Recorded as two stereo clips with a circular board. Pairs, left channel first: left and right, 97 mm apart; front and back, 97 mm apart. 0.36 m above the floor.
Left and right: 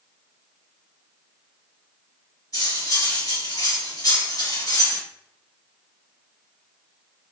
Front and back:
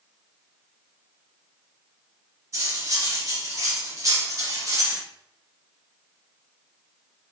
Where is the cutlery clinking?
130° left, 1.8 m.